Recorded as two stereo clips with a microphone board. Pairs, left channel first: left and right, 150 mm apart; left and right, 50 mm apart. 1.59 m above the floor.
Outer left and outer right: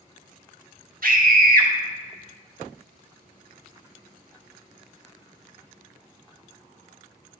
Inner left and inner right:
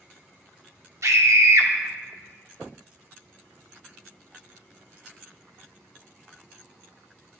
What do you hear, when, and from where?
1.0 s a scream: 70° right (ahead or behind), 1.1 m